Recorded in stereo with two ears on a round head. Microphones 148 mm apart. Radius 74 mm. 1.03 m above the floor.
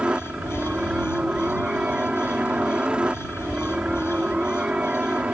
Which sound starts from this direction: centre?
A helicopter, at 0.0 s.